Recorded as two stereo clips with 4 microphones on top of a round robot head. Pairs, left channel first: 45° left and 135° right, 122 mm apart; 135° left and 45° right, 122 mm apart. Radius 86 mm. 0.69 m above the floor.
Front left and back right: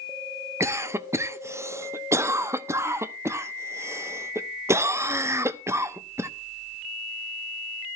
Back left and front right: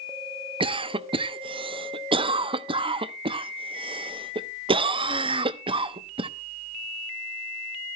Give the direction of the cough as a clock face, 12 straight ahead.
2 o'clock.